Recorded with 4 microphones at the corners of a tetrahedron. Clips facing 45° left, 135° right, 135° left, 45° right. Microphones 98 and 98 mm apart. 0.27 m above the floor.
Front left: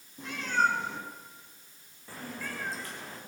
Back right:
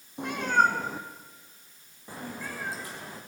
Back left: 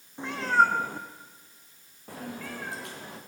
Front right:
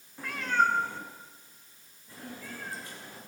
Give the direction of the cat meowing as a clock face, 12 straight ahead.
5 o'clock.